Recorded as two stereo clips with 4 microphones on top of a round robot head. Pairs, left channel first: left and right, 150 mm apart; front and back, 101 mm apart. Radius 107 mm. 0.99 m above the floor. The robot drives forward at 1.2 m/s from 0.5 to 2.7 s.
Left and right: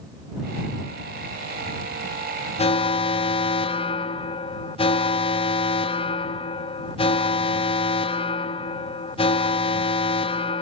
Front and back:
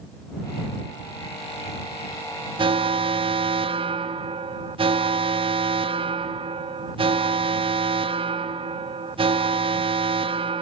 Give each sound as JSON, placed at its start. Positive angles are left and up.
{"t": 2.6, "sound": "an alarm", "azimuth_deg": 140, "distance_m": 0.9}